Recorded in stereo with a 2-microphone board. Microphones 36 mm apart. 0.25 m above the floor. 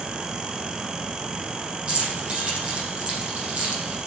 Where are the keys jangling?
35° right (ahead or behind), 6 m.